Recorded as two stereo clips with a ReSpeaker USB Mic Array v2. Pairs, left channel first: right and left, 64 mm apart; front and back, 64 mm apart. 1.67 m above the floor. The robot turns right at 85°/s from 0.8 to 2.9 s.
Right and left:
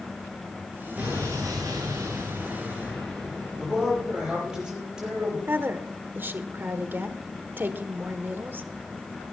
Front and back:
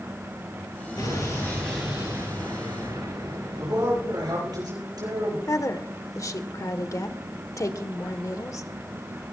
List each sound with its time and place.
1.0 s an explosion: 20° left, 9.5 m; by 4.6 s 175° right, 9.5 m
3.6 s a man speaking: 170° left, 9 m
5.5 s a woman speaking: 35° left, 1.3 m